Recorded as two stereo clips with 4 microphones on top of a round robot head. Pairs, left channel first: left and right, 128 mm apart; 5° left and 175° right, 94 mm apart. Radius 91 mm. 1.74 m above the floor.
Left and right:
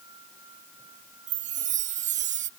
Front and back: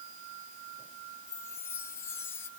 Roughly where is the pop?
No pop in this recording.